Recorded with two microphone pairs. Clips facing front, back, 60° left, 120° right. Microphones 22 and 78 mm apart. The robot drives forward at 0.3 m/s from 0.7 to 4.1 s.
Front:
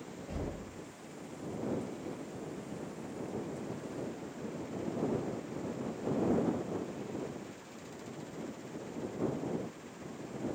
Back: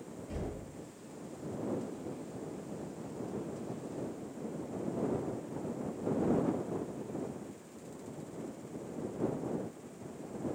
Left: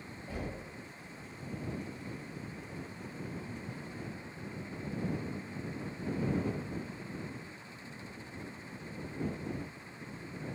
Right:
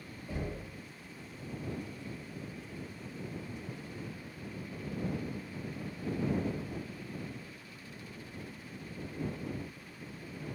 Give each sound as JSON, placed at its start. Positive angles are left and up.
{"t": 0.3, "sound": "knocking", "azimuth_deg": 20, "distance_m": 1.9}